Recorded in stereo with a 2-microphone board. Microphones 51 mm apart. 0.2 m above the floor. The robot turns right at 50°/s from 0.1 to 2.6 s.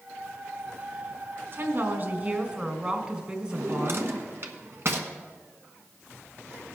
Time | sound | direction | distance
1.5 | a woman speaking | 85° right | 1.6 m
3.5 | a drawer | 55° right (ahead or behind) | 1.2 m